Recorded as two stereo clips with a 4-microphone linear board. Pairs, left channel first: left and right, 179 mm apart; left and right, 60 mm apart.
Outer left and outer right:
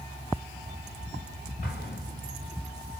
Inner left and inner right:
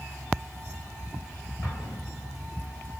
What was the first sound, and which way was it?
An explosion, 55° left (ahead or behind).